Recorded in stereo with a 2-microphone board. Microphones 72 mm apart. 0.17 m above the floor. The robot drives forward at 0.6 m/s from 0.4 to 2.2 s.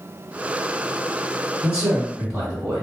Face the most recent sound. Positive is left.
turn(degrees=-10)  # may be behind; listen again after turning